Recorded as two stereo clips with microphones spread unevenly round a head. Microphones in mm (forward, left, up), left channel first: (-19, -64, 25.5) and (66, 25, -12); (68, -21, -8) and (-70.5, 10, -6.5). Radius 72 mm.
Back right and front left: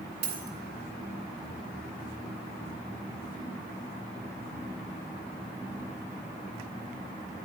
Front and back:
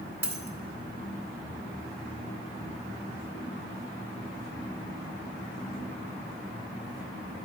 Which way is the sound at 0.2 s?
95° left.